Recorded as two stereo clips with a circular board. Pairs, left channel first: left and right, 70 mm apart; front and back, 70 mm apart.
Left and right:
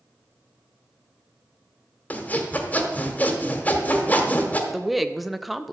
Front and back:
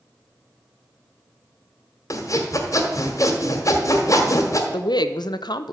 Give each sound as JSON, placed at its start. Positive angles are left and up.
{"t": 2.1, "sound": "sawing", "azimuth_deg": 25, "distance_m": 1.6}
{"t": 4.7, "sound": "a woman speaking", "azimuth_deg": 0, "distance_m": 0.7}